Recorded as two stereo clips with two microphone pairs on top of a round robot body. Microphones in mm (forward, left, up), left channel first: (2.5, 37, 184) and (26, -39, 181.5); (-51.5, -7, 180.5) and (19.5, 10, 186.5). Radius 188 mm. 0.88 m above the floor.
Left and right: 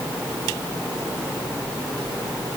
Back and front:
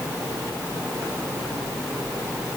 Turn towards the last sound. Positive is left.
No sound to turn to.